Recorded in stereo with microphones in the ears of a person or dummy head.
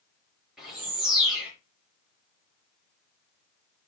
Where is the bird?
5° right (ahead or behind), 6 m.